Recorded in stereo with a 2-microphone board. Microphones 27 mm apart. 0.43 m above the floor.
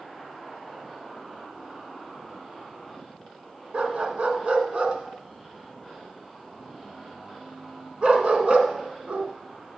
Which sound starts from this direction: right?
A dog barking, at 3.7 s.